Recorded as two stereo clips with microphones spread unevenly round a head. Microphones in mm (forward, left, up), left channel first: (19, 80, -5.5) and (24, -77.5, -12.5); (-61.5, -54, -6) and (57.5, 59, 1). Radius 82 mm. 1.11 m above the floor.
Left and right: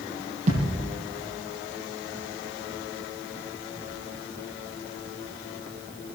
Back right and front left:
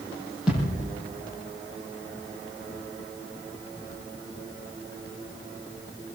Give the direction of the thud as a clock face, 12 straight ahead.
1 o'clock.